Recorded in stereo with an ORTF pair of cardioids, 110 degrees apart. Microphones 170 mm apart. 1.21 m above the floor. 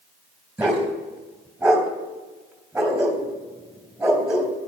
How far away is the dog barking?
About 3 m.